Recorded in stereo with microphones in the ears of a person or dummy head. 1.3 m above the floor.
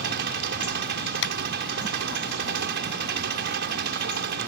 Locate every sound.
0.0 s an engine running: 60° right (ahead or behind)
1.2 s a clap: 65° left (ahead or behind)